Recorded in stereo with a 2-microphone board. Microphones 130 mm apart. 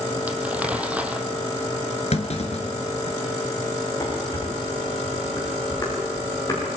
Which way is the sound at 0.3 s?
10° right (ahead or behind).